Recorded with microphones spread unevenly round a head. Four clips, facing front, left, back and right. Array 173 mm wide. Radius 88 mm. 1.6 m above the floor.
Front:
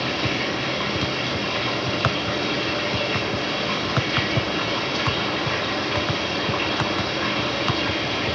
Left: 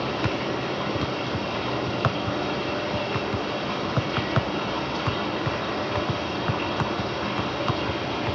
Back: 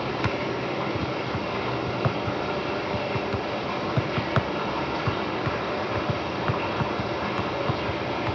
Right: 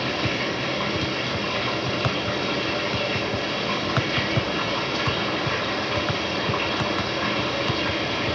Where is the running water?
50° right, 4 m.